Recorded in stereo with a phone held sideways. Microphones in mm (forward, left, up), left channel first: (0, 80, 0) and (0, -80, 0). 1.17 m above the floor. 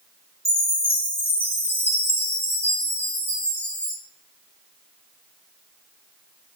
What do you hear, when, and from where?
0.5 s a chime: 15° right (ahead or behind), 1.7 m